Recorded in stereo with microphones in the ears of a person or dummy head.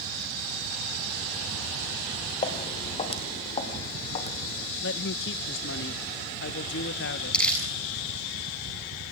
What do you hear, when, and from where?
2.4 s footsteps: 35° left (ahead or behind), 2.5 m; by 4.7 s 40° left (ahead or behind), 3.5 m
4.8 s a man speaking: 55° left (ahead or behind), 1.0 m
7.3 s crumpling: 5° left (ahead or behind), 7.5 m